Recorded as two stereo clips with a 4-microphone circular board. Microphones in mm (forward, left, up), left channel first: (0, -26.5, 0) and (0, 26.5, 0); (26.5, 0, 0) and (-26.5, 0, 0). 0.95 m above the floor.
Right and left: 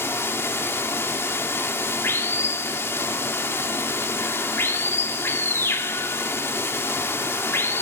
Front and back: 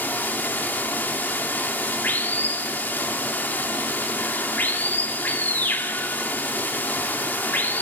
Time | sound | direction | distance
0.0 | running water | 55° right | 2 m